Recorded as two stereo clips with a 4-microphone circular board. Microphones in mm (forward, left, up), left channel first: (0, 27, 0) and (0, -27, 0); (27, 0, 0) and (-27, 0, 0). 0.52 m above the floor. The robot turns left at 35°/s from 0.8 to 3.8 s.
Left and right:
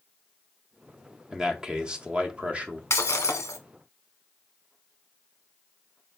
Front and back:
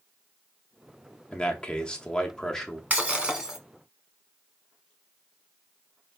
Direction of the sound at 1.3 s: 25° right.